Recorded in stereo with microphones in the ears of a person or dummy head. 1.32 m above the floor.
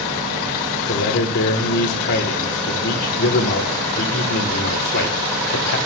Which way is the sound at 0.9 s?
55° left (ahead or behind).